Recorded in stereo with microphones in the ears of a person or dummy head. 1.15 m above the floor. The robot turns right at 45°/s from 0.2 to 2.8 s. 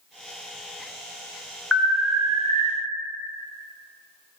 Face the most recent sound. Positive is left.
turn(degrees=-135)